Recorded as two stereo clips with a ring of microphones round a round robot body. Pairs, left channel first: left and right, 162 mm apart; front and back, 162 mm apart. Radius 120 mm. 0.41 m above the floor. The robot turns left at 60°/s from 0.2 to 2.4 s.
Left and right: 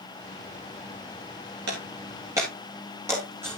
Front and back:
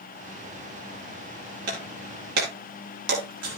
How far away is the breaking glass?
About 6.5 m.